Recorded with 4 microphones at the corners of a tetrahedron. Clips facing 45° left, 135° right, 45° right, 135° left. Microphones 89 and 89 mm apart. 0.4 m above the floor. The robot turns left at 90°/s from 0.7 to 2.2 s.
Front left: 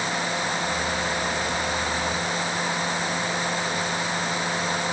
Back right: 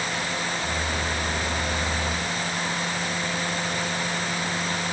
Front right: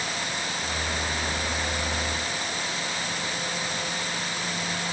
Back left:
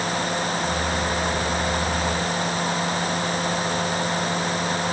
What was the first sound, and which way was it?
Only background noise.